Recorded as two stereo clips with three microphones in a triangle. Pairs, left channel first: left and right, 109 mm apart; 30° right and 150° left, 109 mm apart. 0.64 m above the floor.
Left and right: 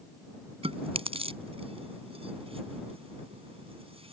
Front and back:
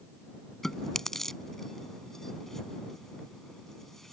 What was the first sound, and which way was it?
Chewing, 115° right.